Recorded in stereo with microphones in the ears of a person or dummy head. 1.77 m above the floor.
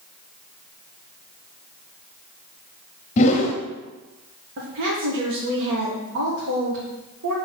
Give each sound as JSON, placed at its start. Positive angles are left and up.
{"t": 3.2, "sound": "a whoosh", "side_deg": 40, "distance_m": 0.9}
{"t": 4.6, "sound": "a woman speaking", "side_deg": -70, "distance_m": 1.5}